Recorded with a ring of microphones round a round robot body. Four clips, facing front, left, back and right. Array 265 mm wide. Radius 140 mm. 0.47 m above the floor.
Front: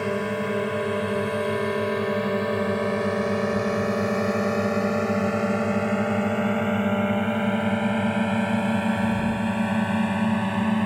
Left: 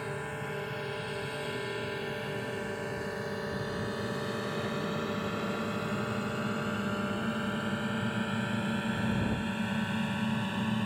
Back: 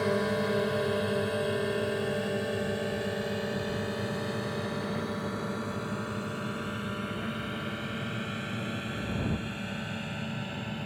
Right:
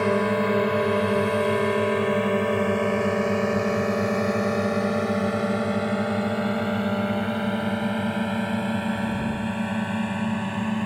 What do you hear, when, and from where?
0.0 s a drone: 80° right; by 10.9 s 20° right